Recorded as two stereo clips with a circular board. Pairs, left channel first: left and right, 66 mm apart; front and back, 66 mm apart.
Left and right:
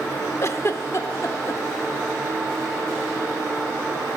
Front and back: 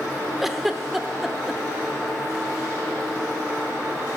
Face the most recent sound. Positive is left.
turn(degrees=95)